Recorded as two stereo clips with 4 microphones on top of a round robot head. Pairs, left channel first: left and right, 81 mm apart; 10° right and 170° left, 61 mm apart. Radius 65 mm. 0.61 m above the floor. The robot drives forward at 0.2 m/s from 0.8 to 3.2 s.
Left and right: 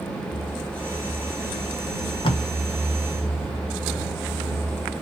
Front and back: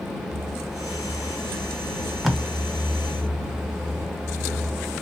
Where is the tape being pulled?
80° left, 0.8 m; by 2.4 s 85° left, 0.8 m.